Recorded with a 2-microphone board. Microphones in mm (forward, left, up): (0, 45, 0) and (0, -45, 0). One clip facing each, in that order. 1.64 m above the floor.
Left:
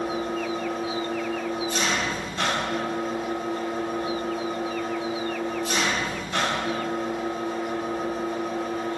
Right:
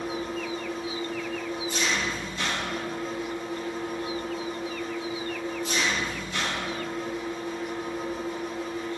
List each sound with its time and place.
0.0 s an engine running: 70° left (ahead or behind), 1.7 m